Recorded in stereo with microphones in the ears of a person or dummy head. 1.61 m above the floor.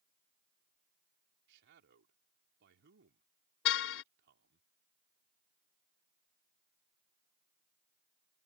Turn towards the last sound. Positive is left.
turn(degrees=70)  # may be behind; listen again after turning